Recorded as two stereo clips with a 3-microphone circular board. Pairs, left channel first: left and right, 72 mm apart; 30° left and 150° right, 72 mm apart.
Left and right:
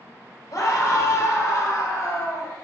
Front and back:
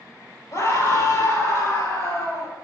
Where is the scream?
65° left, 3.5 m.